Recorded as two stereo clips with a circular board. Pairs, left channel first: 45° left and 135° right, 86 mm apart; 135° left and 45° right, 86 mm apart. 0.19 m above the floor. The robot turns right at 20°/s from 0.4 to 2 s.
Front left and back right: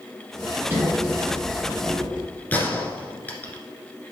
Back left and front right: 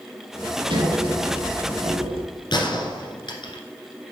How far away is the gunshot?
About 1.6 m.